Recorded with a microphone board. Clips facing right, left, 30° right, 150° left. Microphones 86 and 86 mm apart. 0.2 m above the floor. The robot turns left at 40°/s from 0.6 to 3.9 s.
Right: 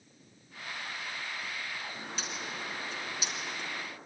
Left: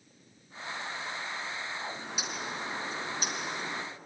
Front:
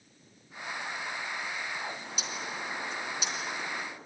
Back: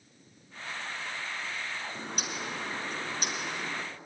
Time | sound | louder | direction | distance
1.9 | a bird | left 2 dB, back 2 dB | 175° left | 3 m